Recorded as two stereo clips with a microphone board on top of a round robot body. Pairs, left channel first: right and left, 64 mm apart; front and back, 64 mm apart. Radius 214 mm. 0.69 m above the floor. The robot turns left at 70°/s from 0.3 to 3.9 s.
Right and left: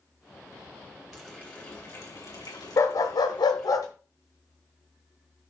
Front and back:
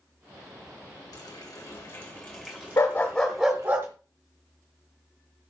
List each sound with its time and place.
1.1 s a running tap: straight ahead, 3.5 m; by 3.8 s 175° left, 3.5 m
2.8 s a dog barking: 55° right, 0.7 m; by 3.9 s 130° right, 0.7 m